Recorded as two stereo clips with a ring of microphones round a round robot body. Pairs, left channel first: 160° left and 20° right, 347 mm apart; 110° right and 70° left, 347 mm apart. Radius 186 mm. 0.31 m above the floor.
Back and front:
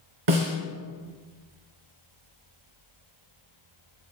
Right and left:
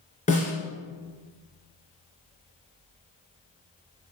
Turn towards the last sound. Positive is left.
turn(degrees=-40)